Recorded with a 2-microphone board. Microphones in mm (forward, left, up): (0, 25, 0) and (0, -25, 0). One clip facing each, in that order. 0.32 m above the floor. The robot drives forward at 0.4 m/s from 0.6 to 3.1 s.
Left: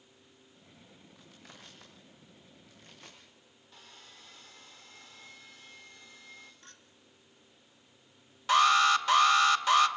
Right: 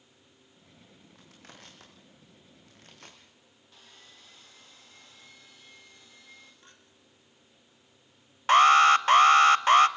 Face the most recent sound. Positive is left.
turn(degrees=-45)  # may be behind; listen again after turning